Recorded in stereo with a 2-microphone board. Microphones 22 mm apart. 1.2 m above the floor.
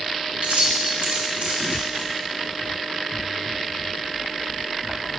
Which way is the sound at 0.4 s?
80° right.